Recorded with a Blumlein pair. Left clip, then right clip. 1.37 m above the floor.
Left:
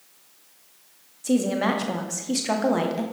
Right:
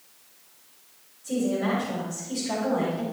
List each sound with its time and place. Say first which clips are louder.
1.2 s a woman speaking: left 4 dB; 35° left, 0.8 m